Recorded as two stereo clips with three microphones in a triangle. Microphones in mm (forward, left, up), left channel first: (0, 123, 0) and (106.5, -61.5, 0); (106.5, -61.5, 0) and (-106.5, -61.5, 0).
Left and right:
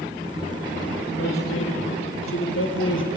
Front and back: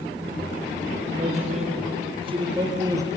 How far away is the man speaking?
About 5.5 m.